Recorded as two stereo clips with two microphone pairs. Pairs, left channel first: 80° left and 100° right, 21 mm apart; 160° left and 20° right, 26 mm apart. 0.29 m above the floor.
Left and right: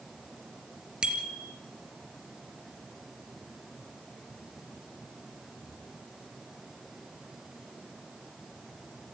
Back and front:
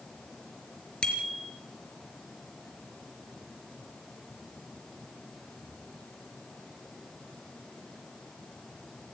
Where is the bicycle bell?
145° right, 3.5 m.